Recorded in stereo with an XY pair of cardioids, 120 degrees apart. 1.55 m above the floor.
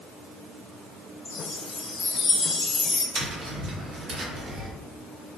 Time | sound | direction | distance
1.2 | a chime | 25° left | 1.1 m
3.1 | tapping | 55° right | 1.2 m